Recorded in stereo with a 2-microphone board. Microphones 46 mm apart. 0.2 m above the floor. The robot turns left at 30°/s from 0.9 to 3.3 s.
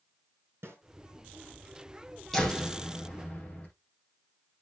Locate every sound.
0.6 s a snare drum: 60° right (ahead or behind), 3 m
2.3 s a door slam: 5° left (ahead or behind), 6.5 m; by 3.7 s 30° left (ahead or behind), 6.5 m